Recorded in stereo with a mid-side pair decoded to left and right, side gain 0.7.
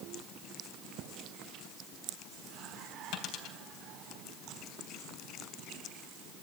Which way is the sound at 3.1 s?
60° left.